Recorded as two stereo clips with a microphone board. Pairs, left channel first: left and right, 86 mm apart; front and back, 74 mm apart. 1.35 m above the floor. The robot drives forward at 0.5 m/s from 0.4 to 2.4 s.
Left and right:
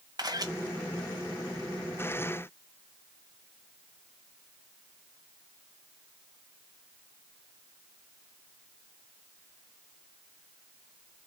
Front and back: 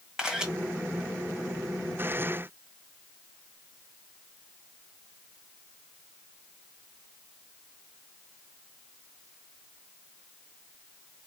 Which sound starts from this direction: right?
A camera shutter, at 0.2 s.